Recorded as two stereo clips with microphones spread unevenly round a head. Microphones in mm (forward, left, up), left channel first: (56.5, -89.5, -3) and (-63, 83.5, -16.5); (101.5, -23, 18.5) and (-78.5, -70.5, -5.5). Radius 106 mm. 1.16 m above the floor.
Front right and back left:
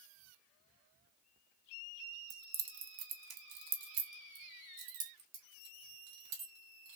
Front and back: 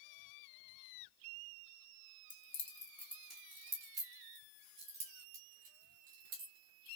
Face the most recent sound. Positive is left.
turn(degrees=145)